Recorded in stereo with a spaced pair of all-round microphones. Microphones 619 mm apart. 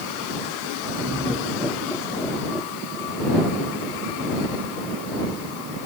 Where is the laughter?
Centre (ahead or behind).